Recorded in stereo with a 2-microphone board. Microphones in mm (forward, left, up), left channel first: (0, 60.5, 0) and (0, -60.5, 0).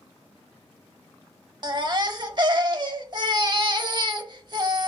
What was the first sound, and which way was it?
A baby crying, 40° right (ahead or behind).